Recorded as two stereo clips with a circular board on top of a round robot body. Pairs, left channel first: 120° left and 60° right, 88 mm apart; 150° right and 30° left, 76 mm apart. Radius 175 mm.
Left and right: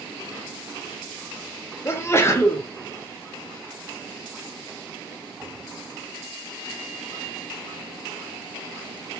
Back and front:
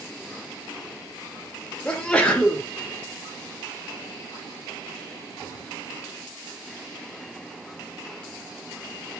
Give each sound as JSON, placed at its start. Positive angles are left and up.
{"t": 1.9, "sound": "a sneeze", "azimuth_deg": 145, "distance_m": 0.8}